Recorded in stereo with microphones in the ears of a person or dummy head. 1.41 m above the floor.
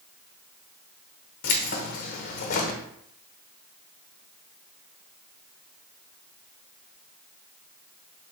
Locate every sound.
1.4 s keys jangling: 45° left (ahead or behind), 0.7 m